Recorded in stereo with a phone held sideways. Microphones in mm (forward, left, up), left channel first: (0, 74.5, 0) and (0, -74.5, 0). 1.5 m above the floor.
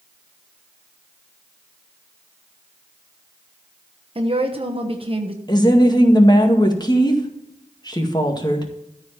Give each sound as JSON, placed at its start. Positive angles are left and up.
{"t": 4.2, "sound": "a woman speaking", "side_deg": -40, "distance_m": 1.3}
{"t": 5.5, "sound": "a woman speaking", "side_deg": 30, "distance_m": 1.9}